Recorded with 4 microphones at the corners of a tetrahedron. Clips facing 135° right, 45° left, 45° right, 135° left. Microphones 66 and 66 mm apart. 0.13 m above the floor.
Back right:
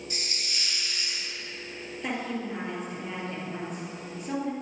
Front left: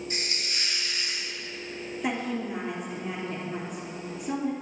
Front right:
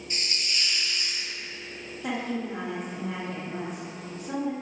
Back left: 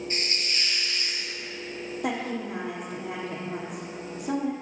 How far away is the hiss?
About 1.0 m.